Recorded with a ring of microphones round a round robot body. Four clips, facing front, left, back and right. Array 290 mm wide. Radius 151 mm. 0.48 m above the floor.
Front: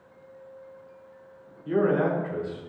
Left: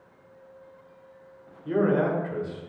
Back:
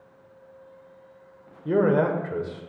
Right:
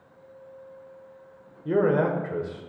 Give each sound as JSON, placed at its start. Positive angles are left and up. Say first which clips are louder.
{"t": 1.6, "sound": "a man speaking", "louder": "right 1 dB, back 2 dB", "azimuth_deg": -150, "distance_m": 1.5}